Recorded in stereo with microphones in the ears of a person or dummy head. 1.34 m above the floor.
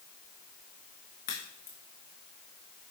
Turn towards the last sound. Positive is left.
turn(degrees=35)  # may be behind; listen again after turning